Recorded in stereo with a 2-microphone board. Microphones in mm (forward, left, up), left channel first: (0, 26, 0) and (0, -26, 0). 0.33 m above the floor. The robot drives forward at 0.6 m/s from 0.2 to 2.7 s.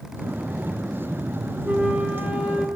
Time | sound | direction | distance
1.6 | a flute | 25° right (ahead or behind) | 3 m